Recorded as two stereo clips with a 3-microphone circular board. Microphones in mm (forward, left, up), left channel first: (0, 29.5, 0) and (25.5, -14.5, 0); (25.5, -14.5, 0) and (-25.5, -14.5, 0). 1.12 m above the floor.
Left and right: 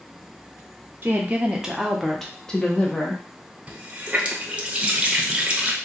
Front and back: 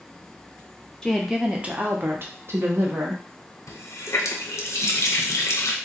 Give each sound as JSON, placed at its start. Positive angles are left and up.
{"t": 1.0, "sound": "a woman speaking", "azimuth_deg": -80, "distance_m": 0.7}
{"t": 3.7, "sound": "a running tap", "azimuth_deg": 5, "distance_m": 0.6}